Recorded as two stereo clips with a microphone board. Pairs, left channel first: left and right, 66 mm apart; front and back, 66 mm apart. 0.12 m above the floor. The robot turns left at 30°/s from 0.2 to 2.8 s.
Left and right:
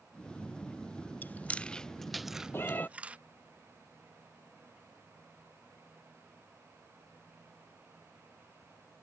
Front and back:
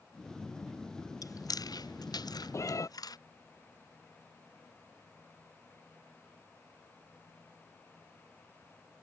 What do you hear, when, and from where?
1.2 s chewing: 30° left; by 3.2 s 20° right
2.5 s a cat meowing: 35° left; by 2.9 s 30° left